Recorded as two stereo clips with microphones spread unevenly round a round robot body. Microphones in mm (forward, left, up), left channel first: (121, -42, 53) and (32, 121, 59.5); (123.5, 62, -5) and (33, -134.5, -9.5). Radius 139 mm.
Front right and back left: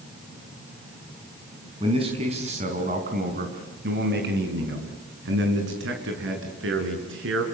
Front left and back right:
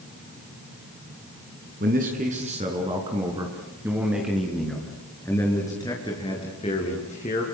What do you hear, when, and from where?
1.8 s a man speaking: 175° right, 4.5 m; by 7.4 s 130° left, 6.5 m